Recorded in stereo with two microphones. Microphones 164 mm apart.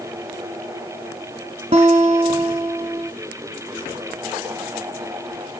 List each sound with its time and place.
1.7 s a guitar: 45° right (ahead or behind), 1.6 m